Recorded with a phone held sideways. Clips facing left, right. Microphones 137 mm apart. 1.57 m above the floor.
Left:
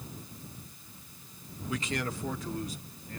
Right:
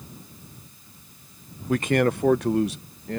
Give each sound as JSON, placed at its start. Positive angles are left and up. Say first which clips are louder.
{"t": 1.7, "sound": "a man speaking", "louder": "right 13 dB", "side_deg": -50}